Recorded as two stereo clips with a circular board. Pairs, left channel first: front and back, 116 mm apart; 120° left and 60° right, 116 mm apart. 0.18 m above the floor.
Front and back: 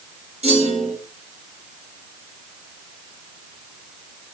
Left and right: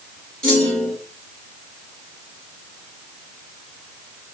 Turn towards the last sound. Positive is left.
turn(degrees=-160)